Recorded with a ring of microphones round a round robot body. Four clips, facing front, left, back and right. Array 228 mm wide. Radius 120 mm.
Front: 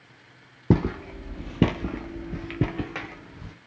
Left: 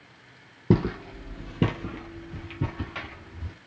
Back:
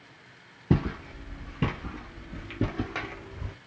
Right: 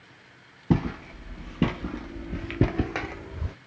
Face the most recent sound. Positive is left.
turn(degrees=-105)